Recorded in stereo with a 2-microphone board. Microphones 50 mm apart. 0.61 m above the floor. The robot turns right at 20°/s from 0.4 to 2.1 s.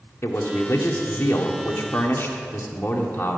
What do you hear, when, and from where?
0.2 s a man speaking: 90° left, 1.6 m; by 3.4 s 120° left, 1.6 m